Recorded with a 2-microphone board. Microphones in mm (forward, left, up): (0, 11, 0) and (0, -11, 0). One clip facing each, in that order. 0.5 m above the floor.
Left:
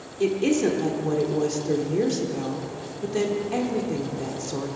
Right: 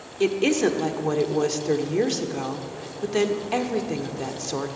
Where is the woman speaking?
30° right (ahead or behind), 1.4 m.